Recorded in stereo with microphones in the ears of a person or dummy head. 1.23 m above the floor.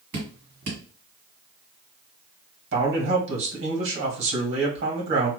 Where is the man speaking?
65° right (ahead or behind), 1.6 m.